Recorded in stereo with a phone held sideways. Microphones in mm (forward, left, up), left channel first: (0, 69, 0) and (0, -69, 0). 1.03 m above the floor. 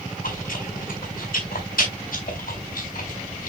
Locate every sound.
0.2 s chewing: 70° left (ahead or behind), 4.5 m